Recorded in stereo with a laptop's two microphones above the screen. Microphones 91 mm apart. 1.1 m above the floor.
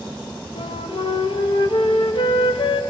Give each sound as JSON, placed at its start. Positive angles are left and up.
{"t": 0.6, "sound": "a flute", "side_deg": 80, "distance_m": 0.6}